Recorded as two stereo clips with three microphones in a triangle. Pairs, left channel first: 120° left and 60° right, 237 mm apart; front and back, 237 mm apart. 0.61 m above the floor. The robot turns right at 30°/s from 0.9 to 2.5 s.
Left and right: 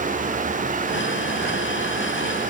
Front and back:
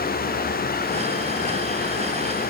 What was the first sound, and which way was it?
Only background noise.